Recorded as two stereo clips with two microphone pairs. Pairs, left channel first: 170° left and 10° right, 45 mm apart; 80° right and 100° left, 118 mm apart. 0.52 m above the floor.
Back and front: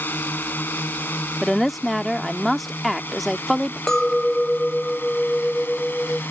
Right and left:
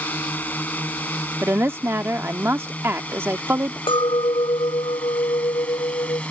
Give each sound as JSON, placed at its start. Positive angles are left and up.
{"t": 0.0, "sound": "a drone", "azimuth_deg": -155}
{"t": 1.4, "sound": "a woman speaking", "azimuth_deg": 85}
{"t": 3.9, "sound": "a clink", "azimuth_deg": -120}